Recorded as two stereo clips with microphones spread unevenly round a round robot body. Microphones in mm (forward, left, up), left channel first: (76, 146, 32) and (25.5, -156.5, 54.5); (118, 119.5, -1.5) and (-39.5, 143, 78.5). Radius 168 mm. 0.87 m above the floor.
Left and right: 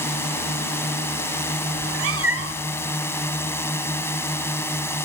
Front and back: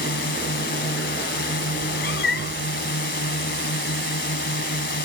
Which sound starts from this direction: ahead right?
A cat meowing, at 1.8 s.